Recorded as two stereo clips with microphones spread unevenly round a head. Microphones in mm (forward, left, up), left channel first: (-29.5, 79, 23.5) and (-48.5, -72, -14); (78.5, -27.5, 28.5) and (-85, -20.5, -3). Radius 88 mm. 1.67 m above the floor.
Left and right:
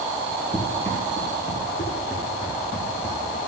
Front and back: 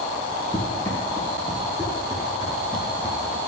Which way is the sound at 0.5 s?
30° left.